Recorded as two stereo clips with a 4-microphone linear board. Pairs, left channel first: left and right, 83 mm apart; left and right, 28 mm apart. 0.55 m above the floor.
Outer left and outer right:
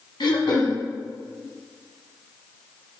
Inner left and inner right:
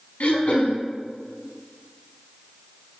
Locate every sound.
0.2 s throat clearing: 75° left (ahead or behind), 1.2 m